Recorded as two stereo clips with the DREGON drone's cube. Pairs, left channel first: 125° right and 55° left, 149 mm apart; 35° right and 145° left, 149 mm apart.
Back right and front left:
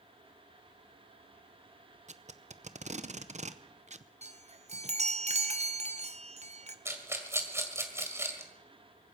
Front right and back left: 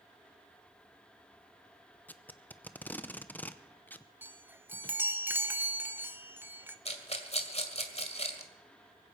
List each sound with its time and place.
2.1 s tape being pulled: 40° left, 0.7 m
4.2 s a chime: 75° left, 0.9 m
6.8 s a rattle: 10° right, 1.9 m